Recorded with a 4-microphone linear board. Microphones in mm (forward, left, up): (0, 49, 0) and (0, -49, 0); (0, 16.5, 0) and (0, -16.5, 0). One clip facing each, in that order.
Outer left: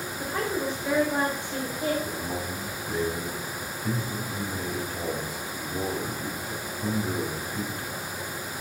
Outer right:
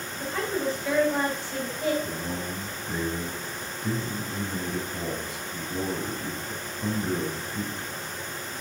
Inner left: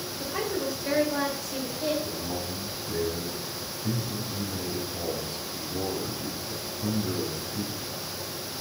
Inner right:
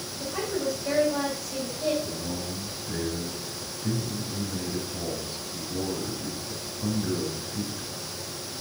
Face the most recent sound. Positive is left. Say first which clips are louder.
# even, even
turn(degrees=-15)  # may be behind; listen again after turning